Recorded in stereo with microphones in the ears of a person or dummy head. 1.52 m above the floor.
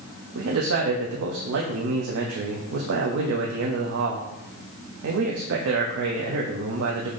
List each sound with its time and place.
0.3 s a man speaking: 70° right (ahead or behind), 0.6 m